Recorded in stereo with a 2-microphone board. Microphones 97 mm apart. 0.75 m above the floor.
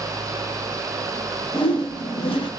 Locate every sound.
1.5 s a whoosh: 65° left (ahead or behind), 0.6 m